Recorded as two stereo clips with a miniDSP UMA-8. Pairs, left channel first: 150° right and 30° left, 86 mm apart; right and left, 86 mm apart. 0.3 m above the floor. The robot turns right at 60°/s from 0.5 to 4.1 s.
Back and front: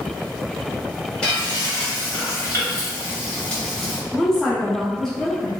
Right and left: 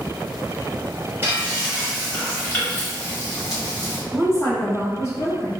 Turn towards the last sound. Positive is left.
turn(degrees=-70)